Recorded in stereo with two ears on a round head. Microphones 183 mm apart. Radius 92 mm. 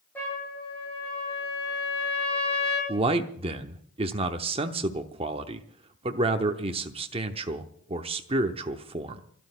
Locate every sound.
0.1 s a trumpet: 10° left (ahead or behind), 8 m
2.9 s a man speaking: 30° right (ahead or behind), 0.8 m